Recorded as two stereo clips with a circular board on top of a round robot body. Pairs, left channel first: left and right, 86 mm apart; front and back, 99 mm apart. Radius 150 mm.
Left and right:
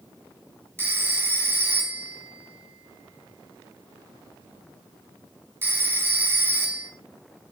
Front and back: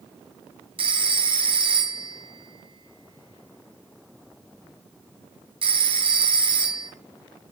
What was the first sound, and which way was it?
A phone ringing, 155° right.